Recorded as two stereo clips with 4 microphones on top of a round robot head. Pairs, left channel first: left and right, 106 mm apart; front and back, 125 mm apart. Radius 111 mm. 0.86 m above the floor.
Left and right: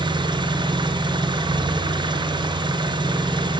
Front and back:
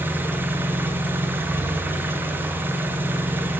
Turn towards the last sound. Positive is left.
turn(degrees=-110)